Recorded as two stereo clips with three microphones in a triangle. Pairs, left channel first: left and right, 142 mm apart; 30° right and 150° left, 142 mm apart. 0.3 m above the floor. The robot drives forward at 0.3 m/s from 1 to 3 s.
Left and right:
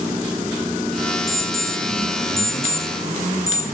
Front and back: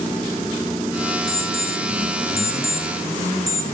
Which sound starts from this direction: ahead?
An alarm clock, at 1.3 s.